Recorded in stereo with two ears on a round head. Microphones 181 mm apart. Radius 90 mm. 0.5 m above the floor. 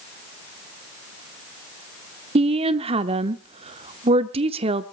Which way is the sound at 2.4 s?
30° right (ahead or behind).